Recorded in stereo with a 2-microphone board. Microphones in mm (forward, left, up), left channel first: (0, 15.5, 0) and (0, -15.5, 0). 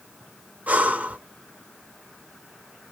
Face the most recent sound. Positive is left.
turn(degrees=-50)  # may be behind; listen again after turning